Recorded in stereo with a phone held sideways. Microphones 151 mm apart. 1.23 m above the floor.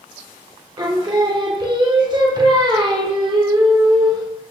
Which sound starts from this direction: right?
Singing, at 0.8 s.